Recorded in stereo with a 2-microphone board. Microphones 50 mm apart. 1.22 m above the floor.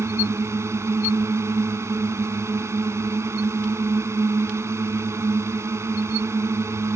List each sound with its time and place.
0.0 s a drone: 75° right (ahead or behind)